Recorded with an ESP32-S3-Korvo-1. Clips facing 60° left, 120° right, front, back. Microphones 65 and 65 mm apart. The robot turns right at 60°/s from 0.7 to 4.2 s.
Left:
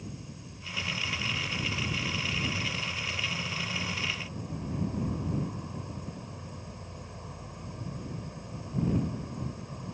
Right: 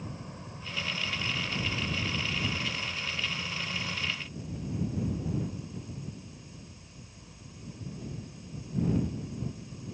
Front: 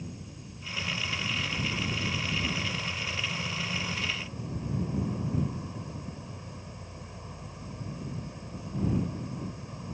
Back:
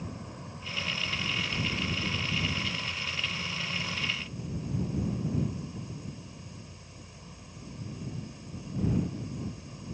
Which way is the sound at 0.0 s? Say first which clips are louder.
Right 2 dB, back 2 dB; 160° right.